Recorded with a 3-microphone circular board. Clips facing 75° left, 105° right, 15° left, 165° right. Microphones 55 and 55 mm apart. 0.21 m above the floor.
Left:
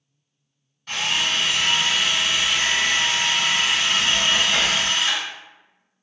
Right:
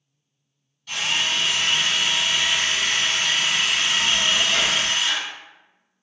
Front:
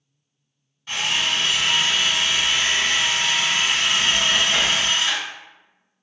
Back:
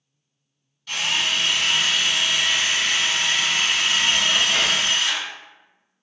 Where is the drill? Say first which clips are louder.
Left 1 dB, even; 70° left, 0.9 m.